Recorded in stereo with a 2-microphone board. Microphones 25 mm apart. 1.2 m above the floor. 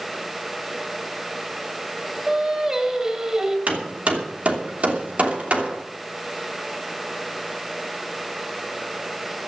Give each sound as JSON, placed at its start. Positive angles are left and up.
{"t": 2.3, "sound": "singing", "side_deg": -25, "distance_m": 3.5}
{"t": 3.7, "sound": "hammering", "side_deg": -60, "distance_m": 2.5}